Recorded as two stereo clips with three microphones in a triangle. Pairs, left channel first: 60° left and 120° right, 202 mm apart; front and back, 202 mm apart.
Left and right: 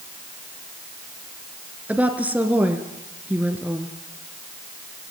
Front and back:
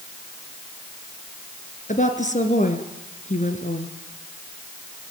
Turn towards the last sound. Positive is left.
turn(degrees=-40)